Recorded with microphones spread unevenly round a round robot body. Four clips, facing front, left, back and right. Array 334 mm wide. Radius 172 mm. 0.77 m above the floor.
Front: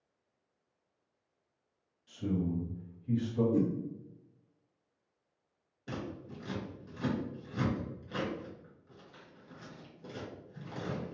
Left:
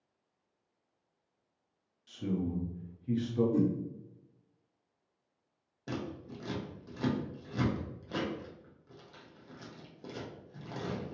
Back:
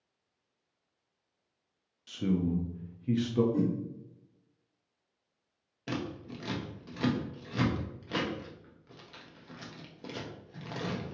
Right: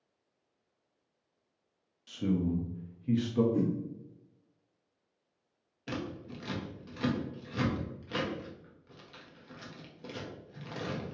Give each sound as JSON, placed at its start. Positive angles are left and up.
{"t": 2.1, "sound": "a man speaking", "azimuth_deg": -160, "distance_m": 0.7}
{"t": 3.5, "sound": "a whoosh", "azimuth_deg": 55, "distance_m": 0.7}
{"t": 5.9, "sound": "scissors", "azimuth_deg": 175, "distance_m": 0.9}